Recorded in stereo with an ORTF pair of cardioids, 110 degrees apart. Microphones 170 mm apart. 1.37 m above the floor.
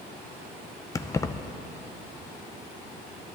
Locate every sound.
0.9 s keys jangling: 20° left, 0.6 m